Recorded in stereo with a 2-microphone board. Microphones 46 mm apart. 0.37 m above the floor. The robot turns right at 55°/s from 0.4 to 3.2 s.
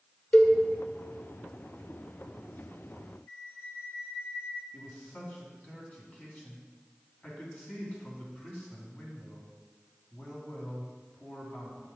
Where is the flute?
55° left (ahead or behind), 1.4 m.